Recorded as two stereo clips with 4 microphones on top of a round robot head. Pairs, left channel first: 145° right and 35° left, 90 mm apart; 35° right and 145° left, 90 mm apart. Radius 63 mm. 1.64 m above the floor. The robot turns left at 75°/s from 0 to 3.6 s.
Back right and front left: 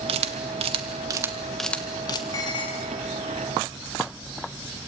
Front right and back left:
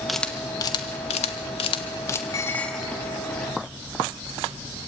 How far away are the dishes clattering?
About 1.8 m.